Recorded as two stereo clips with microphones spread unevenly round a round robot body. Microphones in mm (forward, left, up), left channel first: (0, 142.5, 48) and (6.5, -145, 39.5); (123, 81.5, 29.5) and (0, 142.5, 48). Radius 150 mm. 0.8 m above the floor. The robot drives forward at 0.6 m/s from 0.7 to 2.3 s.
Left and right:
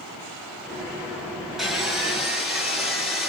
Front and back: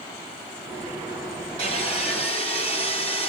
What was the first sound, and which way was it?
Sawing, straight behind.